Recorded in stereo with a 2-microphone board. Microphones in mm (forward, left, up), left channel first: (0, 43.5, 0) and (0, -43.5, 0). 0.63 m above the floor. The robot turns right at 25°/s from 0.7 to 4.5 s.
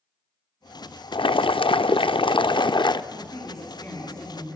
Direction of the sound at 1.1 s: 75° left.